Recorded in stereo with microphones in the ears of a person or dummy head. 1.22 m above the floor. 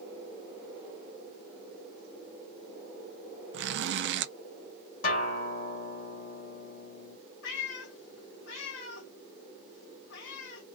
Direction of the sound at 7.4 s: 65° left (ahead or behind).